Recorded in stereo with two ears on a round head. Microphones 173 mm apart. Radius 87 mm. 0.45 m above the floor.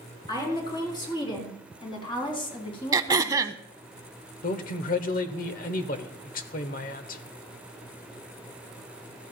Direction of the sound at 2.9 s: 20° right (ahead or behind).